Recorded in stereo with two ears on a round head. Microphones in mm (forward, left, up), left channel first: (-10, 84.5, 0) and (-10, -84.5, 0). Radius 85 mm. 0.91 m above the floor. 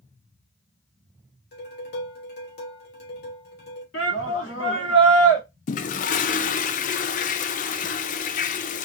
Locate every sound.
1.5 s dishes clattering: 60° left (ahead or behind), 2 m
3.9 s a shout: 75° left (ahead or behind), 2.5 m
5.7 s a toilet flushing: 45° left (ahead or behind), 0.5 m